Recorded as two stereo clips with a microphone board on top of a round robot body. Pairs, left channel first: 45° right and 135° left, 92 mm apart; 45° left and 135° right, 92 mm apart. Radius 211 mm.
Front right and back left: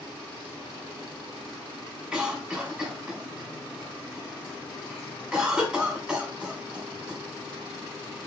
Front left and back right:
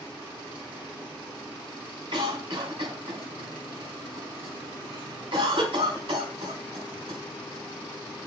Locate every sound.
2.1 s a cough: 145° right, 2.5 m